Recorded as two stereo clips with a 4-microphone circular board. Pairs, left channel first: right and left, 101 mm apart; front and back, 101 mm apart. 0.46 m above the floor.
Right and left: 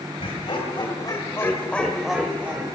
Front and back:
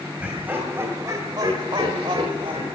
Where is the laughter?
105° right, 2.5 m; by 2.6 s 155° left, 2 m.